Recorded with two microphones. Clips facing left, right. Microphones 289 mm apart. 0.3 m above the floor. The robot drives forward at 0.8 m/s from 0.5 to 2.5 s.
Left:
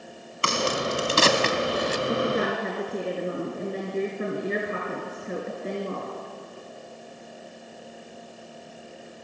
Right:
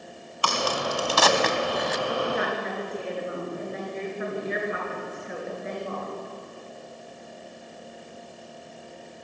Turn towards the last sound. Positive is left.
turn(degrees=35)  # may be behind; listen again after turning